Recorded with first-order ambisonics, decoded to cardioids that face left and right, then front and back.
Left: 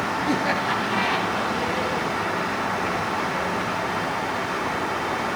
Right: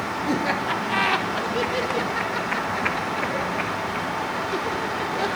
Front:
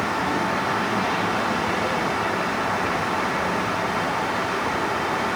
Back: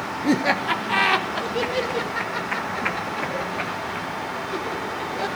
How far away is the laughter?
About 1.3 m.